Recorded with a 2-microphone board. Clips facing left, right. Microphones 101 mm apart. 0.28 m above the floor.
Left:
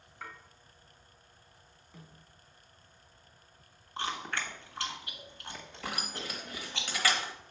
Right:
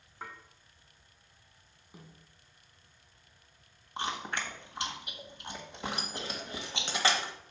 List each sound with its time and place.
0.2 s dishes clattering: 25° right (ahead or behind), 1.6 m
1.9 s a snare drum: 10° right (ahead or behind), 1.6 m
4.0 s chewing: 20° right (ahead or behind), 1.4 m
5.8 s keys jangling: 25° right (ahead or behind), 1.0 m